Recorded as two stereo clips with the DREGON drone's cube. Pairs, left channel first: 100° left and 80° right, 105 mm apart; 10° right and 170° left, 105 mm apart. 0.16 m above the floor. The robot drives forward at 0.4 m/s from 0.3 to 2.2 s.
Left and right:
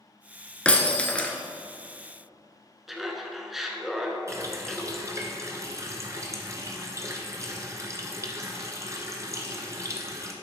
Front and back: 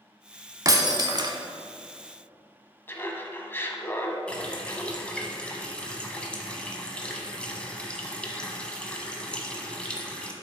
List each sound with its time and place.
0.7 s breaking glass: 165° left, 0.8 m; by 1.4 s 170° left, 1.0 m
2.9 s laughter: 5° left, 1.1 m
4.3 s a running tap: 80° right, 1.1 m